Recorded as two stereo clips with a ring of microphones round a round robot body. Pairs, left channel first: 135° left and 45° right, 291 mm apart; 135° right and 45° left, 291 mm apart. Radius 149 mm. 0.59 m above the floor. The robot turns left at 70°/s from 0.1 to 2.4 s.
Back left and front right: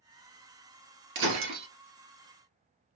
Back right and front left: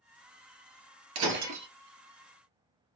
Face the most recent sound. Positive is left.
turn(degrees=-80)